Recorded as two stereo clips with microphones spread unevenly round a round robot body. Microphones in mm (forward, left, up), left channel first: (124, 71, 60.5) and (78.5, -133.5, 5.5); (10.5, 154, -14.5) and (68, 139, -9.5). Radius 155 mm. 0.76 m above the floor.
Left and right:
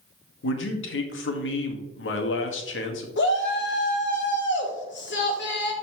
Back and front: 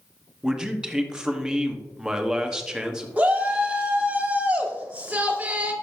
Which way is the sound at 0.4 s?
65° left.